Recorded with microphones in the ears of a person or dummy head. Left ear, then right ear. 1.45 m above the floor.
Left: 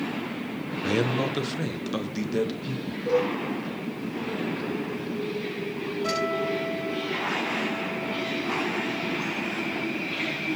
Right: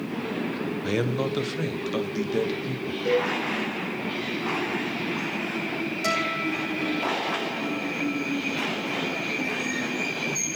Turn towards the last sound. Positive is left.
turn(degrees=-55)  # may be behind; listen again after turning